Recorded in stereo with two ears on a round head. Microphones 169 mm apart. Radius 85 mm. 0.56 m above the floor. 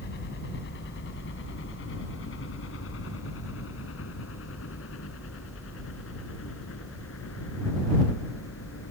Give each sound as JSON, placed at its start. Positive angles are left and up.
{"t": 0.0, "sound": "a helicopter", "side_deg": 60}